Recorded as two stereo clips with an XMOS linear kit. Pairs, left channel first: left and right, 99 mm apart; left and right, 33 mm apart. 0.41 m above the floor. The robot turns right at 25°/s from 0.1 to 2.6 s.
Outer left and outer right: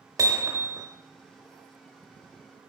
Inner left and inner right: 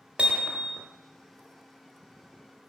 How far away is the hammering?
About 1.1 m.